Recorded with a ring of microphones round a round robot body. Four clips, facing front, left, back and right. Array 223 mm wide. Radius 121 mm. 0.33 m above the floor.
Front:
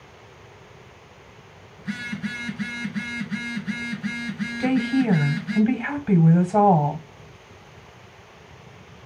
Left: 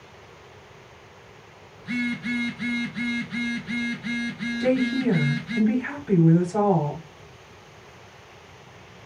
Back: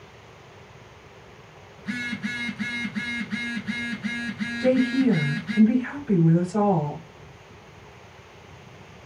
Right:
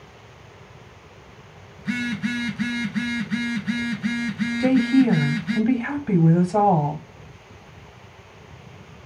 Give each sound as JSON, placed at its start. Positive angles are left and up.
{"t": 1.8, "sound": "a phone buzzing", "azimuth_deg": -90, "distance_m": 1.7}
{"t": 4.6, "sound": "a woman speaking", "azimuth_deg": -30, "distance_m": 1.8}